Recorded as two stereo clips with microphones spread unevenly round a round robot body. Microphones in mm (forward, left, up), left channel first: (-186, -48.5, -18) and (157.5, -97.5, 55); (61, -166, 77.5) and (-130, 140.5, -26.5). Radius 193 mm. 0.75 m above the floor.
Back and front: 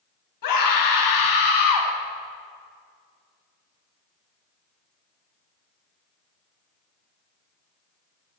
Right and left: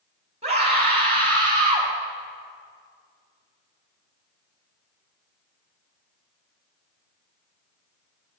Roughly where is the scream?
Behind.